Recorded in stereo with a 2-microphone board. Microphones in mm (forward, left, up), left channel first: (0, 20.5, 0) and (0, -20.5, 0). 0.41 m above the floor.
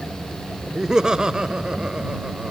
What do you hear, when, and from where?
0.8 s laughter: 15° right (ahead or behind); by 2.5 s 25° right (ahead or behind)